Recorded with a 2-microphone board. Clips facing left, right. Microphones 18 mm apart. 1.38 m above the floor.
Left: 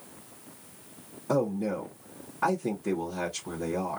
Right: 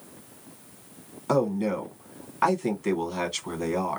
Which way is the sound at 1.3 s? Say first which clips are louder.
Right 3 dB; 65° right (ahead or behind).